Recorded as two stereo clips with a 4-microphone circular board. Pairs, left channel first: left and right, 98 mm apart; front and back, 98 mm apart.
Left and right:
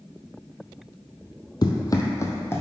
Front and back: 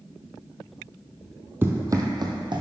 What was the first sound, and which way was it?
Running footsteps, 120° left.